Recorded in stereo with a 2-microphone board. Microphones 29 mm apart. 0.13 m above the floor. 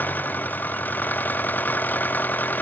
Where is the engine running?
85° left.